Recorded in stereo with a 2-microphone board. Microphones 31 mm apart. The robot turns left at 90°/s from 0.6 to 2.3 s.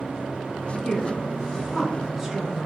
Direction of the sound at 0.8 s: 20° left (ahead or behind).